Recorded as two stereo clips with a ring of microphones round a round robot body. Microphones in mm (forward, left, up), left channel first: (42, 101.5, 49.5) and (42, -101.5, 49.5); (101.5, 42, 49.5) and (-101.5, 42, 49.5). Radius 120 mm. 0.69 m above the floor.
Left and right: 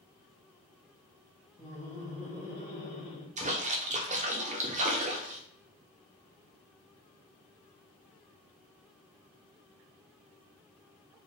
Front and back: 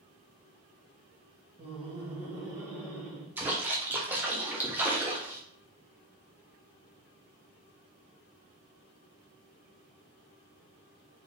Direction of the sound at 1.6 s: 175° left.